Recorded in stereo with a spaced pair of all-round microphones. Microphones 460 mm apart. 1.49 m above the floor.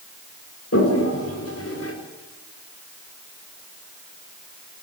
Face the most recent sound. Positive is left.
turn(degrees=30)  # may be behind; listen again after turning